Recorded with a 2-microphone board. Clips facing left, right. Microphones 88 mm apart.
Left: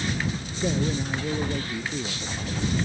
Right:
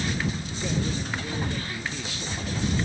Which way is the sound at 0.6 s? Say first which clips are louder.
Left 4 dB; 25° left (ahead or behind).